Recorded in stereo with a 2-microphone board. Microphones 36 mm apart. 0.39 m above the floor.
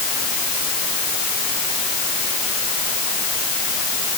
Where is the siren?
I don't hear a siren.